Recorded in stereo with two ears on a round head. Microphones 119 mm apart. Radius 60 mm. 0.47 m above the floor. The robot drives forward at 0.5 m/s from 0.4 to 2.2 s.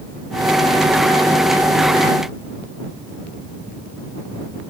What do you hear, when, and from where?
Only background noise.